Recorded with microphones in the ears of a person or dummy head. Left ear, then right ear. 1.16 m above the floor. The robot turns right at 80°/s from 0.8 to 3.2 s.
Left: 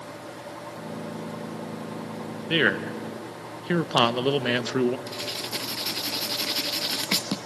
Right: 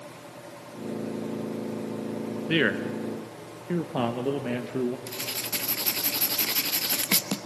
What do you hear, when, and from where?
2.5 s a man speaking: 5° right, 0.7 m; by 5.0 s 50° left, 0.7 m
5.1 s writing: 5° right (ahead or behind), 0.7 m